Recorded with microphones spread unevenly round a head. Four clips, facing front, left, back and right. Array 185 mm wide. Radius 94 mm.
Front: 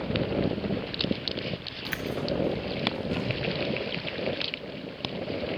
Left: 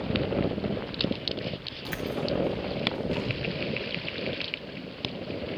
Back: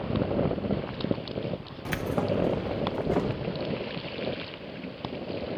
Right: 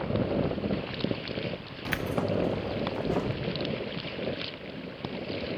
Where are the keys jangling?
145° right, 0.6 m.